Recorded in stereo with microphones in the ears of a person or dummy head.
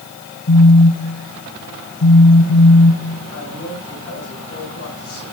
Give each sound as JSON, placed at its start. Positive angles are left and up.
{"t": 0.5, "sound": "a phone buzzing", "side_deg": 70, "distance_m": 1.5}
{"t": 3.3, "sound": "a man speaking", "side_deg": 60, "distance_m": 8.5}